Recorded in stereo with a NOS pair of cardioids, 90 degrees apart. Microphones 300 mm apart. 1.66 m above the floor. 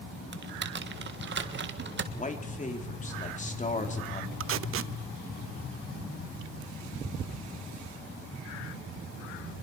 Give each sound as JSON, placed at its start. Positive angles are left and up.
{"t": 0.3, "sound": "typing on a keyboard", "azimuth_deg": -35, "distance_m": 1.7}
{"t": 2.1, "sound": "a man speaking", "azimuth_deg": 25, "distance_m": 3.5}
{"t": 4.4, "sound": "tape being pulled", "azimuth_deg": -45, "distance_m": 0.6}